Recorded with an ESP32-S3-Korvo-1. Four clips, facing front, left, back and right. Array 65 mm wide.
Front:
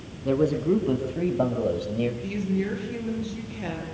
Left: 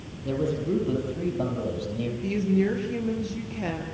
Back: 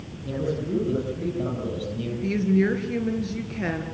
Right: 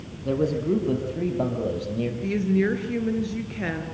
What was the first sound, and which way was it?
A man speaking, 25° right.